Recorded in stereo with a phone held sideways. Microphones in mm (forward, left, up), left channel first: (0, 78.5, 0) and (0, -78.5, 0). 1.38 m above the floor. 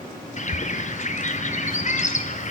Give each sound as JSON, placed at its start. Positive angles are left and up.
{"t": 0.4, "sound": "a bird", "side_deg": 50, "distance_m": 0.7}